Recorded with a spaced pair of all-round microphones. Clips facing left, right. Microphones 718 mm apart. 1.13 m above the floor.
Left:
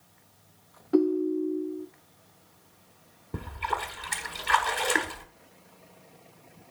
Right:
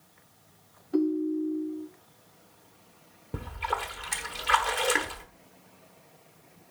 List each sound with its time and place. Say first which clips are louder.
0.9 s a ringtone: left 2 dB; 80° left, 0.5 m
3.3 s a splash: even; 20° right (ahead or behind), 1.0 m